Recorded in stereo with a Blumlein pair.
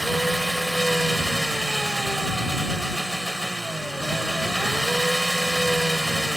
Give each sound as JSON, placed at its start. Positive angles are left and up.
{"t": 0.0, "sound": "an engine running", "azimuth_deg": -5}